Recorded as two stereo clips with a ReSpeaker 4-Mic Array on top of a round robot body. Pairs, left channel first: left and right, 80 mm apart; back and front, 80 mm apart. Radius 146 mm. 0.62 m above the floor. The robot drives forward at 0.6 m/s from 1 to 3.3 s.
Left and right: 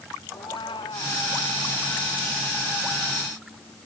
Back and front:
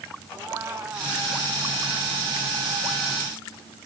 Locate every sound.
0.3 s a cat meowing: 60° left; by 1.2 s 65° left